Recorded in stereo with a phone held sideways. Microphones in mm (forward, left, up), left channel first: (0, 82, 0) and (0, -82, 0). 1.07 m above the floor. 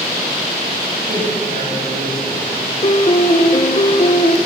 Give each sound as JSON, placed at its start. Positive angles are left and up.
{"t": 1.1, "sound": "a man speaking", "side_deg": -60, "distance_m": 6.5}
{"t": 2.8, "sound": "a piano", "side_deg": 40, "distance_m": 0.6}